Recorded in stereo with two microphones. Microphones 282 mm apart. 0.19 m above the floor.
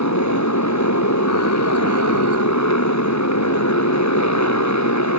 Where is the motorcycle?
70° left (ahead or behind).